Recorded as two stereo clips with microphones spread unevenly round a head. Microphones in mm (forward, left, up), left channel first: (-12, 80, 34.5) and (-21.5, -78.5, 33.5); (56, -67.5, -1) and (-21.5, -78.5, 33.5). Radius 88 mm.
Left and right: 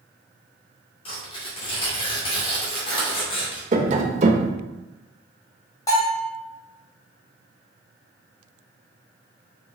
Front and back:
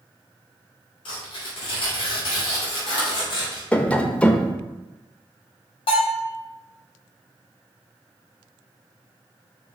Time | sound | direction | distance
1.1 | tearing paper | 30° left | 2.5 m
3.7 | tapping | 95° right | 0.7 m
5.9 | a bell | 15° left | 2.5 m